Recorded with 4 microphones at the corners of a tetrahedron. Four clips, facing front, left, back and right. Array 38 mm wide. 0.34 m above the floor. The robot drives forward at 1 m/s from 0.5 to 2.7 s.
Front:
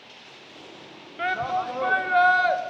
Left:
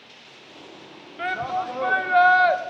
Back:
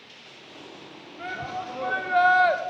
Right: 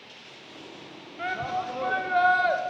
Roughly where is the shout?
Ahead.